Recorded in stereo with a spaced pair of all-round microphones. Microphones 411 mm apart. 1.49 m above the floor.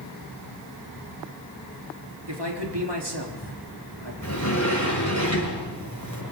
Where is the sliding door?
45° left (ahead or behind), 7.5 m.